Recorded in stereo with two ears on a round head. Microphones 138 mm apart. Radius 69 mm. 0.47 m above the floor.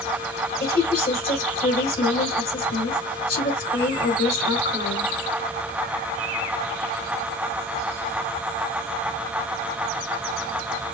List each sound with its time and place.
0.6 s a woman speaking: 60° left (ahead or behind), 2.5 m